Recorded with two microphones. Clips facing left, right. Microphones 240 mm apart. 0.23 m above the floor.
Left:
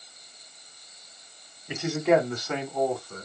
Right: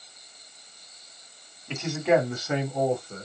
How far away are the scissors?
No scissors in this recording.